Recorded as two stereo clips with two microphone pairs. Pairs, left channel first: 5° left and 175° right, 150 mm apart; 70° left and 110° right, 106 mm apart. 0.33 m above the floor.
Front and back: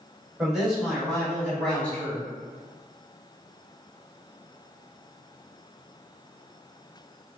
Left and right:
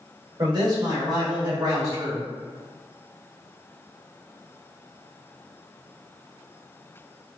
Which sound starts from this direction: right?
A man speaking, at 0.4 s.